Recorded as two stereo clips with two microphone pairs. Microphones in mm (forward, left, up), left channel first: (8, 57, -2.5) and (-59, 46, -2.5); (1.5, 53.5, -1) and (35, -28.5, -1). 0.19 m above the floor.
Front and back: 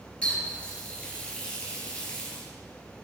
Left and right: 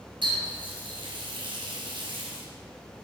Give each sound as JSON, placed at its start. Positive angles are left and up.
{"t": 0.2, "sound": "a running tap", "azimuth_deg": -60, "distance_m": 2.5}